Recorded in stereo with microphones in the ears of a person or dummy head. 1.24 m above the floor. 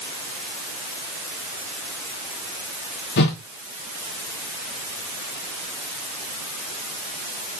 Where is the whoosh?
65° left (ahead or behind), 2 m.